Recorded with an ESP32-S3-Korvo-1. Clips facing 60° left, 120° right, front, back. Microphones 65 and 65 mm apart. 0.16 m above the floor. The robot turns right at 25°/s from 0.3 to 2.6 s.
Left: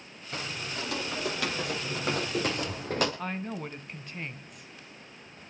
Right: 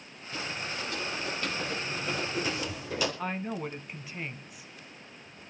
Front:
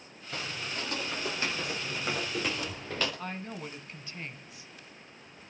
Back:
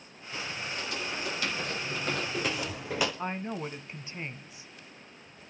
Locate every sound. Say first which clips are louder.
0.3 s footsteps: even, even; 25° left, 6.5 m; by 3.1 s 105° left, 4 m
3.2 s a woman speaking: right 1 dB, back 5 dB; 165° left, 1.1 m